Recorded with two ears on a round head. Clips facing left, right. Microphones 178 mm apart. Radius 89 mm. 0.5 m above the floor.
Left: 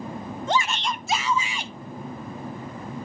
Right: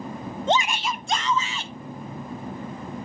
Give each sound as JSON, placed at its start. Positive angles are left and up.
{"t": 0.5, "sound": "a shout", "side_deg": -25, "distance_m": 0.7}